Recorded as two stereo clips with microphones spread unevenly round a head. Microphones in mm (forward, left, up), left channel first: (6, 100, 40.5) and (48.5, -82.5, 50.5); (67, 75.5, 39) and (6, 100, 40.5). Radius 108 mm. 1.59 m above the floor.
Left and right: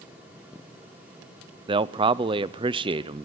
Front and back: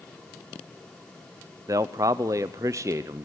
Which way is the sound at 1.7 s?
145° right.